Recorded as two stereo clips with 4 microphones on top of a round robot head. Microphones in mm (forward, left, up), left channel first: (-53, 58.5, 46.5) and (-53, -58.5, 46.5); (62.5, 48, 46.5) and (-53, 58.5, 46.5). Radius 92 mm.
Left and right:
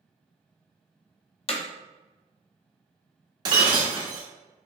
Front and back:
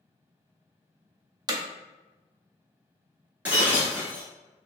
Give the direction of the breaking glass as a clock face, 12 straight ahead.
4 o'clock.